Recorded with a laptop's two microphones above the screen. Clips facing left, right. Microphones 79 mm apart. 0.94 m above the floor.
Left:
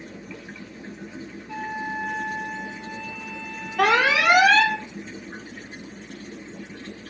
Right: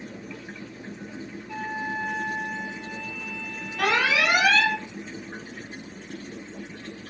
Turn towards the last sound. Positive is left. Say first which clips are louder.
# left 4 dB
turn(degrees=80)